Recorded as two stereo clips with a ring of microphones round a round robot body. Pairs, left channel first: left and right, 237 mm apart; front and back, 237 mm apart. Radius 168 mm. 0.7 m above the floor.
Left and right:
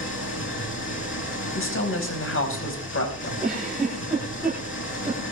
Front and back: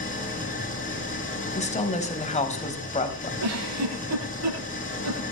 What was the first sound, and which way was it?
An engine running, 55° left.